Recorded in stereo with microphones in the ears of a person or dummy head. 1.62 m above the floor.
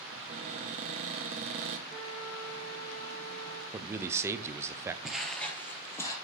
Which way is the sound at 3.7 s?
15° right (ahead or behind).